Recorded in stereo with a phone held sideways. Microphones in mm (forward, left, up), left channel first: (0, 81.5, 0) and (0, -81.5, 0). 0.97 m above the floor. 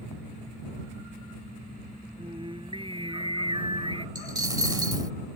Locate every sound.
2.2 s singing: 35° right (ahead or behind)
4.2 s a dropped coin: 25° right (ahead or behind)